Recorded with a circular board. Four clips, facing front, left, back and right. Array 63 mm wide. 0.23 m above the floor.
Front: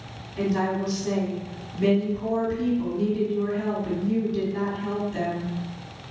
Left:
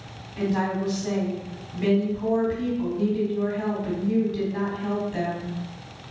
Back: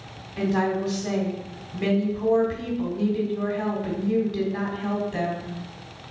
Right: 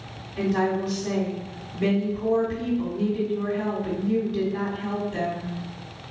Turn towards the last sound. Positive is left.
turn(degrees=165)